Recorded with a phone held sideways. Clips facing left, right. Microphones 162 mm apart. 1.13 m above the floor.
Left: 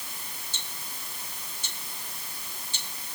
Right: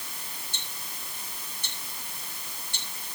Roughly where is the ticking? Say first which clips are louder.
Even; right.